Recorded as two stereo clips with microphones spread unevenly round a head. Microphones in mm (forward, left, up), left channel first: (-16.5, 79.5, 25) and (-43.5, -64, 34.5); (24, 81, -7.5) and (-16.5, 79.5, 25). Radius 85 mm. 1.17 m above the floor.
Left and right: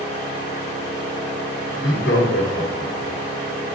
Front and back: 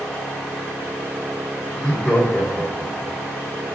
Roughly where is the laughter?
Left.